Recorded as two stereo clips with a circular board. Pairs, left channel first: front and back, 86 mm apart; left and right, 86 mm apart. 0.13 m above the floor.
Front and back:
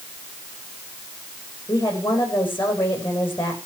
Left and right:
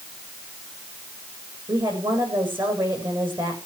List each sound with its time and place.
1.7 s a woman speaking: 65° right, 9 m